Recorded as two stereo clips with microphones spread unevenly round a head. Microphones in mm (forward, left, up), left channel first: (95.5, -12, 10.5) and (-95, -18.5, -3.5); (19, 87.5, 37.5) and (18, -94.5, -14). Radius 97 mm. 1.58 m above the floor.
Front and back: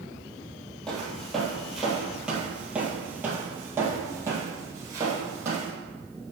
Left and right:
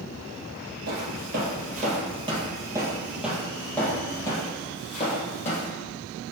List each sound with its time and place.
0.9 s footsteps: 75° right, 1.8 m; by 5.7 s 105° left, 2.5 m